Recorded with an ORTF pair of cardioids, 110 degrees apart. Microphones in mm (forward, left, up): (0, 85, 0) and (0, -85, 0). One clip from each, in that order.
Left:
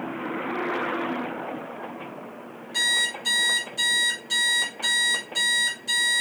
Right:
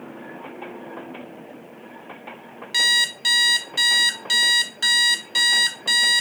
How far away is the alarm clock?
About 0.9 m.